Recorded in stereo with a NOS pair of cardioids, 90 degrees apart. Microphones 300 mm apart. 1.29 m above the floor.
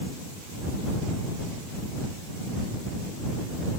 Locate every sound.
Only background noise.